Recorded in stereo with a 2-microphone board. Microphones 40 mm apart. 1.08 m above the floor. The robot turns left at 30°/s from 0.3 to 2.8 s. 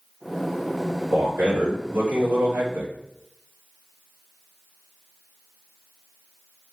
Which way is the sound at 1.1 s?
60° right.